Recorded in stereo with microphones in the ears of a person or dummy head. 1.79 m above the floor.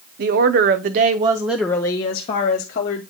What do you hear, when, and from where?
0.2 s a woman speaking: 55° right (ahead or behind), 1.0 m; by 3.0 s 45° left (ahead or behind), 1.2 m